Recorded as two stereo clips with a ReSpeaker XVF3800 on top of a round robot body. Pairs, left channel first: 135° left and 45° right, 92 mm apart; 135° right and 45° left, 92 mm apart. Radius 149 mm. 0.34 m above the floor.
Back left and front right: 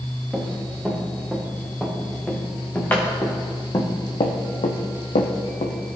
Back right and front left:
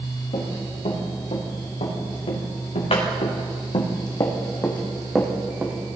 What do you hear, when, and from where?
0.3 s running footsteps: 135° right, 4.5 m; by 5.8 s 115° left, 1.8 m